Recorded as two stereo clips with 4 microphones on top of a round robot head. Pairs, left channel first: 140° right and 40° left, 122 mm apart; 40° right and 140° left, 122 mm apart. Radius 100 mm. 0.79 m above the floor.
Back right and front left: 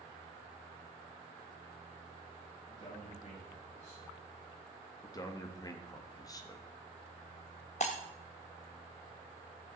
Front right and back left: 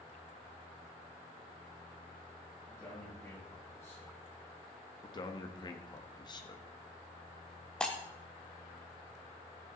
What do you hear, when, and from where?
2.7 s a man speaking: 105° right, 6.5 m
5.0 s a man speaking: 85° right, 1.5 m
7.8 s breaking glass: 120° right, 0.6 m